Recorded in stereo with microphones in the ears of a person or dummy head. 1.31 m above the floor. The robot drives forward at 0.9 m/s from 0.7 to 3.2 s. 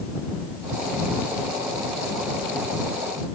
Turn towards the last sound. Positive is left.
No sound to turn to.